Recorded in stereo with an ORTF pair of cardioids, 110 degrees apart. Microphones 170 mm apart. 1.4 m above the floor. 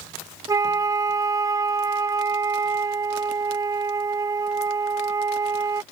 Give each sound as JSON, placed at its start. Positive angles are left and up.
{"t": 0.5, "sound": "a flute", "azimuth_deg": -20}